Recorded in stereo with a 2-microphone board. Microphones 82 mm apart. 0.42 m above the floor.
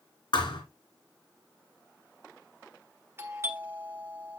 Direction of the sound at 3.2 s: 30° right (ahead or behind).